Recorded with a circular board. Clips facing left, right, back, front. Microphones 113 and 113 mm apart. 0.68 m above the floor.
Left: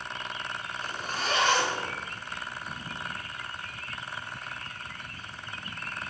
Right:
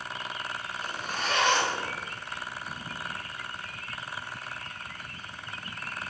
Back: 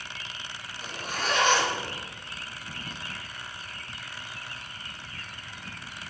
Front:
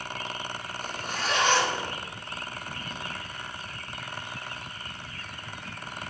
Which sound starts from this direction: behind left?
A zipper, at 0.8 s.